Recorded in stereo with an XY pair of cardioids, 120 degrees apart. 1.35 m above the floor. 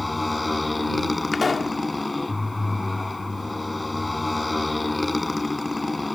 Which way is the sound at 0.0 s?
15° left.